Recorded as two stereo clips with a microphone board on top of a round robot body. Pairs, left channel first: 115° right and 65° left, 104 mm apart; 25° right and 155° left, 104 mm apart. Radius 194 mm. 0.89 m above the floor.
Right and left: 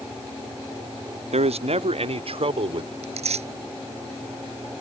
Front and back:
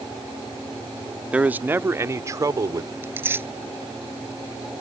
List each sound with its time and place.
1.3 s a man speaking: 80° left; by 2.9 s 100° left
3.0 s tearing paper: 90° left